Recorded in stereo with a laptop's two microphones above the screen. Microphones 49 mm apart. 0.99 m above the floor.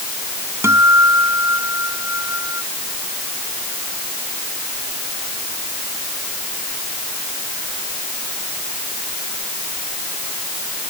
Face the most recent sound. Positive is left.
turn(degrees=-65)  # may be behind; listen again after turning